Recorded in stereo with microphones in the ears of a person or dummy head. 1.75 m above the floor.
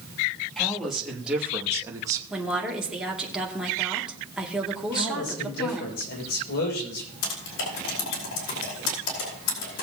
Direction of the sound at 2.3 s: 5° right (ahead or behind).